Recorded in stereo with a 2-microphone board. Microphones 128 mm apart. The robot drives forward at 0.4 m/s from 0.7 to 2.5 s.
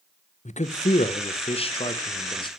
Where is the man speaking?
65° left (ahead or behind), 0.9 m; by 2.5 s 35° left (ahead or behind), 1.3 m.